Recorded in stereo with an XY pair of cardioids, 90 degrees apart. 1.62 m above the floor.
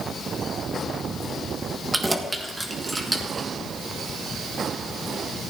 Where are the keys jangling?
15° right, 1.5 m; by 3.5 s 25° right, 2.5 m.